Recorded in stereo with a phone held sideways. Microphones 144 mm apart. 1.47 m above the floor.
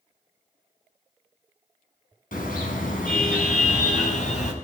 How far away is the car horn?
About 6 m.